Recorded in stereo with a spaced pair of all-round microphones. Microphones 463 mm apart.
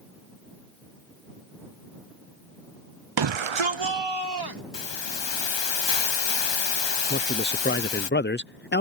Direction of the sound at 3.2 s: 55° right (ahead or behind).